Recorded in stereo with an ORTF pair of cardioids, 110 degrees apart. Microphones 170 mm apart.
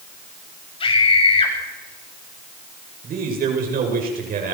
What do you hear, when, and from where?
0.8 s a scream: 30° left, 9 m
3.0 s a man speaking: 55° right, 8.5 m